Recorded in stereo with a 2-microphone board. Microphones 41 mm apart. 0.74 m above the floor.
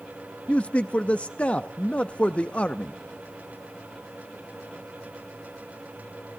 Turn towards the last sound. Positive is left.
turn(degrees=30)  # may be behind; listen again after turning